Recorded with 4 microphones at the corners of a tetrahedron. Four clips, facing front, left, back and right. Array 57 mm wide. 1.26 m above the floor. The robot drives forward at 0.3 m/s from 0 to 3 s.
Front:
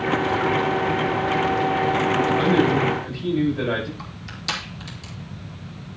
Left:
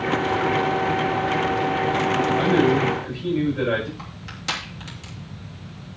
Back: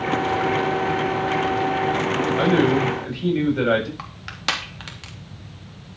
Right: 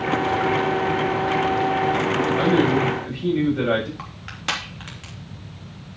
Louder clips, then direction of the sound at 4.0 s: Right 3 dB, back 5 dB; 160° right.